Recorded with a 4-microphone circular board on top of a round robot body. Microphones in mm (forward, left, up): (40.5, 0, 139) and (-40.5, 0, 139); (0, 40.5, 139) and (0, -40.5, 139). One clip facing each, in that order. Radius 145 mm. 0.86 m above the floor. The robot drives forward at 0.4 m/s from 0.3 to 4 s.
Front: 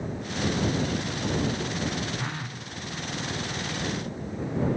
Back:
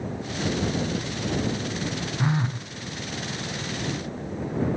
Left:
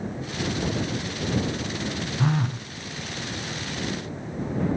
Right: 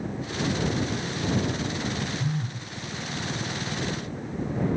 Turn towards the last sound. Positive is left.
turn(degrees=150)